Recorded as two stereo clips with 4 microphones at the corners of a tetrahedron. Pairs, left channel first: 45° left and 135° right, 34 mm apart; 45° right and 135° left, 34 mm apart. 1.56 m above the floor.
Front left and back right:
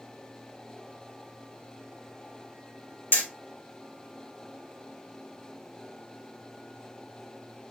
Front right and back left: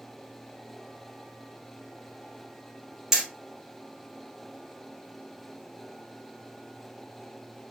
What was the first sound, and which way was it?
Hammering, 60° left.